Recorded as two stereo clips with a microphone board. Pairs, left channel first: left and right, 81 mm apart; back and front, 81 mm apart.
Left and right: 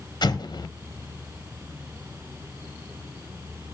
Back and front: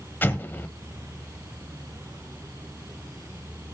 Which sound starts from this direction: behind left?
An explosion, at 0.2 s.